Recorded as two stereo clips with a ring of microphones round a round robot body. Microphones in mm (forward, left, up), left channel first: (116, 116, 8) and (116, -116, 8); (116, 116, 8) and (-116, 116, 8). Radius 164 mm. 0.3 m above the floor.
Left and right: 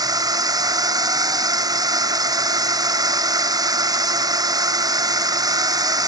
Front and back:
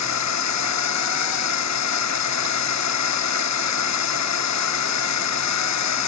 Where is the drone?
15° right.